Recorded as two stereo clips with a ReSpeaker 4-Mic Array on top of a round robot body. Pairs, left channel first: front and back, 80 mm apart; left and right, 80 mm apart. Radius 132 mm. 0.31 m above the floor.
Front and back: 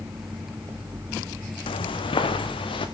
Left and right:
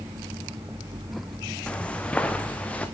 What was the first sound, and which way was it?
Footsteps, 10° left.